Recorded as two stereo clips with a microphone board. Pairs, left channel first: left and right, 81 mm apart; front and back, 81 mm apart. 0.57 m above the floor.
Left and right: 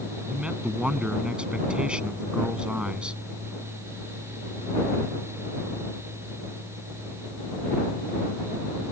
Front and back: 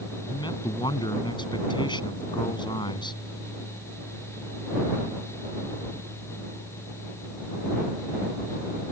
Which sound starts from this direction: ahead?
A man speaking, at 0.3 s.